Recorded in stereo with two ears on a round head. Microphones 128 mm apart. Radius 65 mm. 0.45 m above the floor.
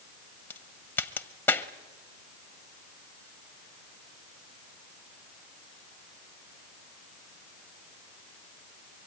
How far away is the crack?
About 1.0 m.